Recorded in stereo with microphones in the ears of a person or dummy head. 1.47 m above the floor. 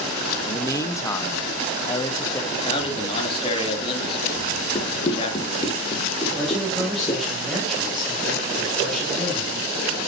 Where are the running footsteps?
35° left (ahead or behind), 3 m; by 7.2 s 30° left (ahead or behind), 4 m.